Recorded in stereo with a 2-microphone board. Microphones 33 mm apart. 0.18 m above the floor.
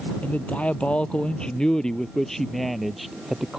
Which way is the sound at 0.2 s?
50° left (ahead or behind).